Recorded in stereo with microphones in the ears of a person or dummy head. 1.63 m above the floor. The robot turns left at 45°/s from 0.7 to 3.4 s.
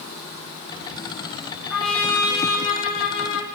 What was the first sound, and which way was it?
A trumpet, straight behind.